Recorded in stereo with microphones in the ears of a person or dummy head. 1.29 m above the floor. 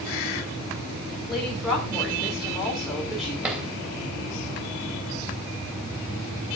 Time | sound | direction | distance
1.3 | a woman speaking | 5° left (ahead or behind) | 3.5 m
3.4 | a drawer | 10° right (ahead or behind) | 3 m